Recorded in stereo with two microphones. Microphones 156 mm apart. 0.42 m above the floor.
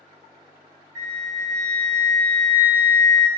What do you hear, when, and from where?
0.9 s a flute: 20° left (ahead or behind), 1.7 m